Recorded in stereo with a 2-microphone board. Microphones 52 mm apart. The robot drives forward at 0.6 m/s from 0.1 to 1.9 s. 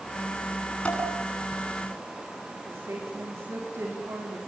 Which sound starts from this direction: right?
A woman speaking, at 2.6 s.